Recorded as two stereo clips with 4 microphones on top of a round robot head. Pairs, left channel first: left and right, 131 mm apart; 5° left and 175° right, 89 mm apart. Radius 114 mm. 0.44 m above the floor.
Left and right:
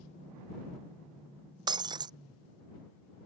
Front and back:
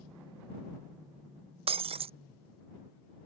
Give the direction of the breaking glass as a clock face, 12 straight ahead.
5 o'clock.